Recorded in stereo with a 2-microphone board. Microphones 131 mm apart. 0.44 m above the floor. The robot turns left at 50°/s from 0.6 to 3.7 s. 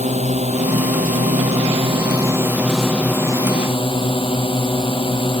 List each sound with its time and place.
0.0 s a drone: 70° right; by 5.4 s 135° left